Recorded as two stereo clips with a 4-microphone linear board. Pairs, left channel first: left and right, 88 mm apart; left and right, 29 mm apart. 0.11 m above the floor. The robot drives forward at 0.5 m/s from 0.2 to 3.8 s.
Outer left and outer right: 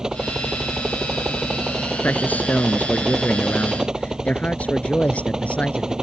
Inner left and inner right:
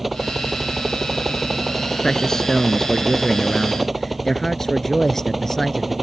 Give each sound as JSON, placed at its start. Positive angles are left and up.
{"t": 0.0, "sound": "a helicopter", "side_deg": -5}
{"t": 2.0, "sound": "a man speaking", "side_deg": 20}